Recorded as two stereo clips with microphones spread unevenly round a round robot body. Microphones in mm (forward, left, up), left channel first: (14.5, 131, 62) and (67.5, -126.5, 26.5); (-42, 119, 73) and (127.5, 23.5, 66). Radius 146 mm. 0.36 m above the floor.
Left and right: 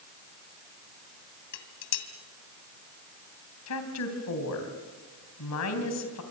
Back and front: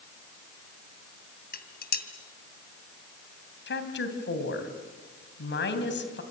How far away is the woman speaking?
About 3 m.